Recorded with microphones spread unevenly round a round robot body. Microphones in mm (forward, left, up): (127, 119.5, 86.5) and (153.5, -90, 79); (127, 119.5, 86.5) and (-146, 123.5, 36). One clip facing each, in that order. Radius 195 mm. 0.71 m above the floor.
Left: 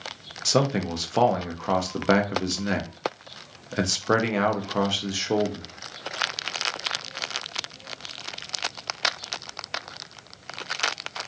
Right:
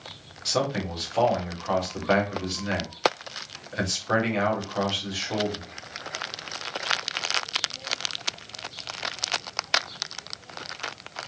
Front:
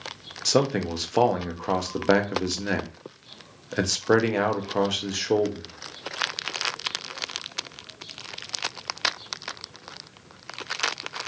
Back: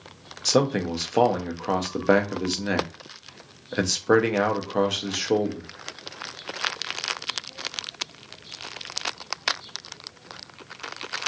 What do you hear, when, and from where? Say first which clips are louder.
0.5 s a man speaking: left 4 dB, back 1 dB; 100° left, 0.6 m